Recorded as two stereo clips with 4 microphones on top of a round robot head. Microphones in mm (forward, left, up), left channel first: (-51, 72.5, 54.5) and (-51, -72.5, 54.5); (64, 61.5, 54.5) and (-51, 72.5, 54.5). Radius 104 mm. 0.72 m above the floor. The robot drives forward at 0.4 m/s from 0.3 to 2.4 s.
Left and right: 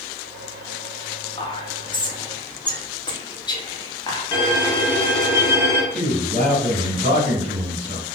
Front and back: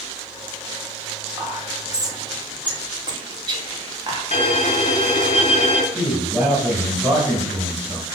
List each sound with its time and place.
1.4 s whispering: 120° left, 1.2 m; by 4.2 s 140° left, 1.4 m
4.3 s a violin: 20° left, 0.6 m
5.9 s a man speaking: 125° right, 1.9 m